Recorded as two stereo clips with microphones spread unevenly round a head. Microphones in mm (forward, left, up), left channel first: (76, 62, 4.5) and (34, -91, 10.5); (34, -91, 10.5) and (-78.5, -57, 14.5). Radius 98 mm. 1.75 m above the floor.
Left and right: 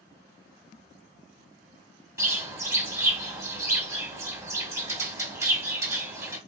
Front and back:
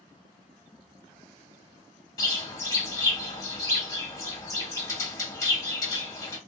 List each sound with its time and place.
2.2 s a bird: 55° right, 1.0 m